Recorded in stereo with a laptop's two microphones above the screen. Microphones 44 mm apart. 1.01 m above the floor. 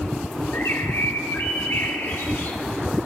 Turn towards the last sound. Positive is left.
turn(degrees=65)  # may be behind; listen again after turning